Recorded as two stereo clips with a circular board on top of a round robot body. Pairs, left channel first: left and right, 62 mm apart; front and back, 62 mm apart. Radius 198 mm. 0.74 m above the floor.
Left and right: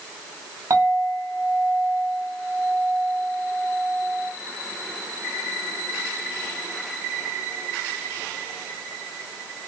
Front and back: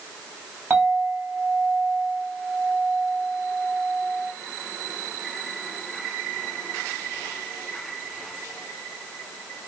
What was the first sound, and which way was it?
A clink, 115° right.